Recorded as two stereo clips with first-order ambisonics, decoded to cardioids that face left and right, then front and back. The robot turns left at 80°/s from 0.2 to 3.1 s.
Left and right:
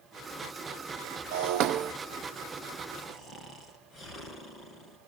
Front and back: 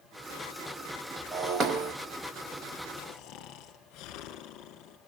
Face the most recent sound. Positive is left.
turn(degrees=25)